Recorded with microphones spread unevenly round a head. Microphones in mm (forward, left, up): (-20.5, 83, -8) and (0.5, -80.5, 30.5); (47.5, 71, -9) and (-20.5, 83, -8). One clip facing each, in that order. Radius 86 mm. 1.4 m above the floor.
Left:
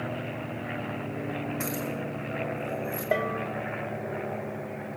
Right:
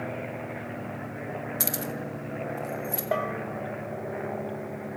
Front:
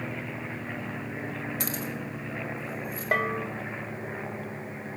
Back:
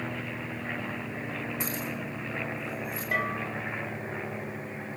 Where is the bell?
20° left, 2 m.